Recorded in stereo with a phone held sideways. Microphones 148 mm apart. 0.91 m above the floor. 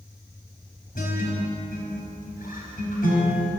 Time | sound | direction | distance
0.9 | a guitar | 75° left (ahead or behind) | 4.5 m